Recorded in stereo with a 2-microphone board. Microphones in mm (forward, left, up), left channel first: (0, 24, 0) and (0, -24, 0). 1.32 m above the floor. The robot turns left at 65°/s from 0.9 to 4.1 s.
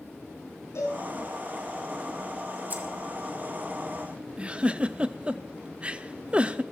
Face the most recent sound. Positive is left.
turn(degrees=-25)  # may be behind; listen again after turning